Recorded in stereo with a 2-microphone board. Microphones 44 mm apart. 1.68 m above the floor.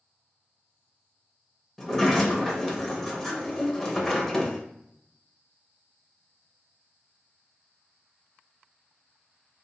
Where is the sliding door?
5° left (ahead or behind), 0.8 m.